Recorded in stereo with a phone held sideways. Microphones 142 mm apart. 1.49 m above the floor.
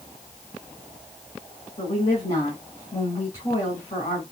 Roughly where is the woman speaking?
Left.